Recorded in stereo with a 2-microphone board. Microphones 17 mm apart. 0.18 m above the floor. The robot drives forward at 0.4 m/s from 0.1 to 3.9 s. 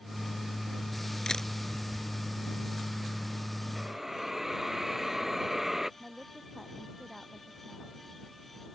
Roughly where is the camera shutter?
Left.